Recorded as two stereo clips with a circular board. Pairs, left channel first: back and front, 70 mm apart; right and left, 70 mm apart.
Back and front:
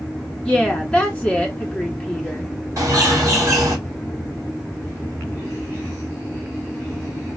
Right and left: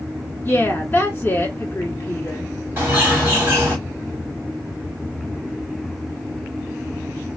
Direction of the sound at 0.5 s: 120° right.